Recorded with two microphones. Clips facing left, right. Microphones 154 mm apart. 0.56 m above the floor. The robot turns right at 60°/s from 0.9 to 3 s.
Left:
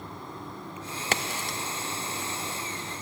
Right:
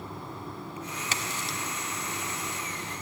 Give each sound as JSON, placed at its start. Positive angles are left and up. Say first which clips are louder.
{"t": 1.1, "sound": "a crack", "louder": "left 7 dB", "side_deg": 65, "distance_m": 0.6}